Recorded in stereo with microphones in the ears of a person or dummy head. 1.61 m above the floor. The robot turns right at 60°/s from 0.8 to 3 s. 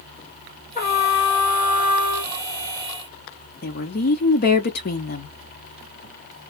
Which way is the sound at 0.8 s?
40° left.